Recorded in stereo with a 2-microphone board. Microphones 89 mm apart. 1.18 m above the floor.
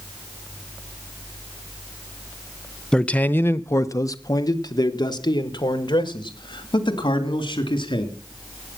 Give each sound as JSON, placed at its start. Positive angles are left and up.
{"t": 2.9, "sound": "a man speaking", "side_deg": 10, "distance_m": 0.7}